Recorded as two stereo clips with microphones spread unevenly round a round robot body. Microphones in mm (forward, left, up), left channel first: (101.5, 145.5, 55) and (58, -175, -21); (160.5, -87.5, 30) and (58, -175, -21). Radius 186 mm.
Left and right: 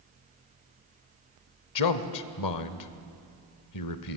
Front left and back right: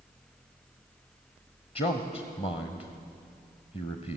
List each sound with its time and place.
1.8 s a man speaking: 110° left, 1.2 m